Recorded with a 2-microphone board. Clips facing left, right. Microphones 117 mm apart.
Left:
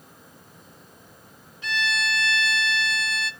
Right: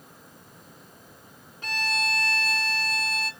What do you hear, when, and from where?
1.6 s a violin: 50° right (ahead or behind), 0.7 m